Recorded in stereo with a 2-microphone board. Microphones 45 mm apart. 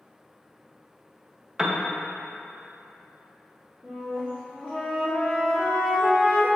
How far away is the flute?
About 3 m.